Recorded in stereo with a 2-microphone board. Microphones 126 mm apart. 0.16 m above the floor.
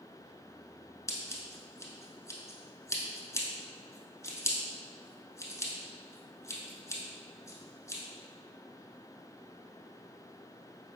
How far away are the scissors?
About 0.8 m.